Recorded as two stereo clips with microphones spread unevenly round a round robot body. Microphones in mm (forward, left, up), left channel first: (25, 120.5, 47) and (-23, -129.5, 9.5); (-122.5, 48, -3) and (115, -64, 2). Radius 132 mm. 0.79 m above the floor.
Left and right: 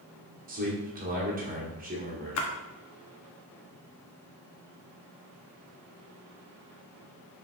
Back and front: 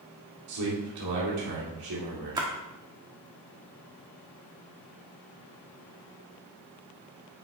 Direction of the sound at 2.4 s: 50° left.